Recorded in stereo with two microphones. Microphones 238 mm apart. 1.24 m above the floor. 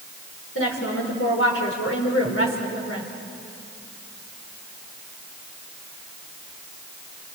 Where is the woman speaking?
65° left (ahead or behind), 5 m.